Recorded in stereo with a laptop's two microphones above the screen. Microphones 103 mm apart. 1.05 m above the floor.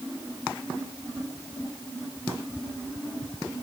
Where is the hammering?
I don't hear hammering.